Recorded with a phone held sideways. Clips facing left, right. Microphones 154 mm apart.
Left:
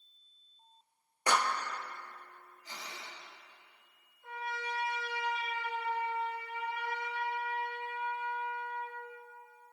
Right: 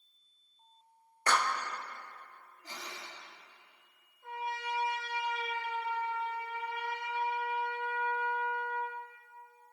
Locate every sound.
1.3 s a clap: 15° left (ahead or behind), 0.8 m
2.6 s breathing: 65° right (ahead or behind), 3 m
4.2 s a trumpet: 60° right (ahead or behind), 5 m